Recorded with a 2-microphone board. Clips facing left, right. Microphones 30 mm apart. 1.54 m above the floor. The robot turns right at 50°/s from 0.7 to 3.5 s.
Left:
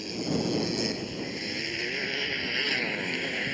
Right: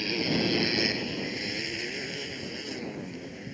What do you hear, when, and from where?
0.0 s a motorcycle: 45° right; by 3.5 s 95° left